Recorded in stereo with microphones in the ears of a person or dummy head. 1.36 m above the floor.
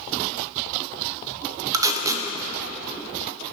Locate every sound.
1.7 s tape being pulled: 25° right (ahead or behind), 0.8 m